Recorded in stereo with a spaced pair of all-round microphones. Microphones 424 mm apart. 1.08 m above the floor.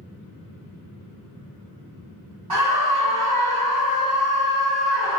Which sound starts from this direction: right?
A scream, at 2.5 s.